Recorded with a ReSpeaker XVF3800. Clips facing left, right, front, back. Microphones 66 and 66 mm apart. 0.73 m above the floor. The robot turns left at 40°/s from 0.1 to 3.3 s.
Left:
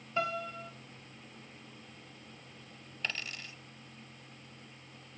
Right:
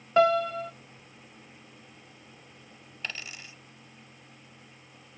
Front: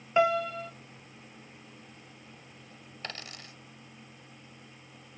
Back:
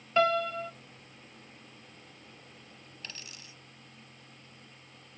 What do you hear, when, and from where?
0.2 s a piano: 75° right, 1.0 m; by 0.7 s 95° right, 1.0 m
3.0 s a dropped coin: 5° right, 0.8 m; by 3.5 s 15° right, 0.8 m